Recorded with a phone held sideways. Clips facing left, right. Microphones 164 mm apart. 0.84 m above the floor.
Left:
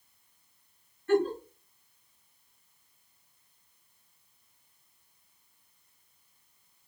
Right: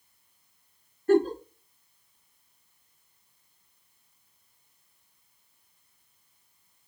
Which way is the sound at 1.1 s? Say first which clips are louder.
Right 4 dB; 35° right (ahead or behind).